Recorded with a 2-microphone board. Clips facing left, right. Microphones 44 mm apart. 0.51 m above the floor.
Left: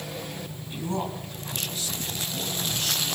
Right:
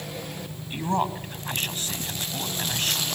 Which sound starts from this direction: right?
A man speaking, at 0.7 s.